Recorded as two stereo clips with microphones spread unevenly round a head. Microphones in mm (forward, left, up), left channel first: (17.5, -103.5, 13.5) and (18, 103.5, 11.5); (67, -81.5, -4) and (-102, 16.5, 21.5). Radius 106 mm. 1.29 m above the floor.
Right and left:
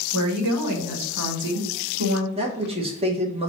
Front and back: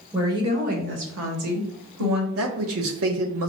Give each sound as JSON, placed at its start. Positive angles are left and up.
{"t": 0.1, "sound": "a woman speaking", "azimuth_deg": 70, "distance_m": 1.0}
{"t": 2.4, "sound": "a man speaking", "azimuth_deg": 155, "distance_m": 0.9}